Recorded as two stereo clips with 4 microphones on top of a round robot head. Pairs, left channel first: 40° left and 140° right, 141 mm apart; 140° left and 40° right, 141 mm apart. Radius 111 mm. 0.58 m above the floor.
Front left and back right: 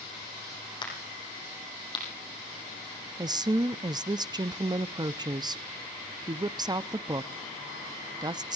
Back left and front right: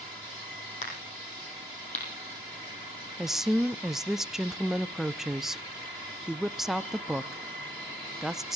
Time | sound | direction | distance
0.8 | a crack | 100° left | 5 m
3.2 | a woman speaking | 125° right | 0.7 m